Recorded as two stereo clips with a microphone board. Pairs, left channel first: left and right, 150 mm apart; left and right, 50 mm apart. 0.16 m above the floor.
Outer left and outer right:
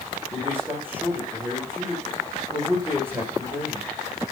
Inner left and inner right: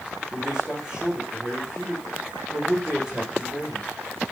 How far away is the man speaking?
About 9.5 m.